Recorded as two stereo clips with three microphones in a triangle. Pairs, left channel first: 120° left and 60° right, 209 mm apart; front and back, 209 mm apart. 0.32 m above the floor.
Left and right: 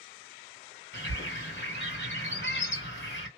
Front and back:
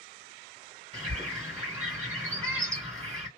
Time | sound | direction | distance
0.9 | a bird | 125° left | 1.8 m